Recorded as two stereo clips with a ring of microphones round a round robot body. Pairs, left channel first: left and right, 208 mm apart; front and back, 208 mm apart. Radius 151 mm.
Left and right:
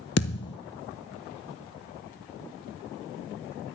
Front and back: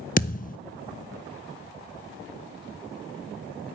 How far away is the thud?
About 0.6 m.